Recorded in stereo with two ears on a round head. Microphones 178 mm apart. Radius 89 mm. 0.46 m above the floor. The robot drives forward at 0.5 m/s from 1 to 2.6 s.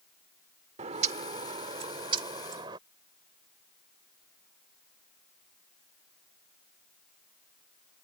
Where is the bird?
35° right (ahead or behind); by 2.8 s 25° right (ahead or behind).